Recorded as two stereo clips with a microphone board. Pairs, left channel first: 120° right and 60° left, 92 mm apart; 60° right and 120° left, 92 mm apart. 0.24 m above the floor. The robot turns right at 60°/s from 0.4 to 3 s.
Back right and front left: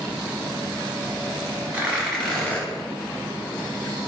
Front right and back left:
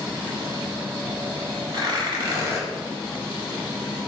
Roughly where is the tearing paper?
Behind left.